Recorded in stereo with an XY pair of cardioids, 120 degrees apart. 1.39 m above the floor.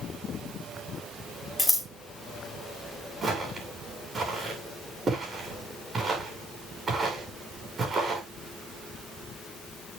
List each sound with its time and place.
1.6 s scissors: 10° left, 3.5 m
3.2 s footsteps: 30° right, 7 m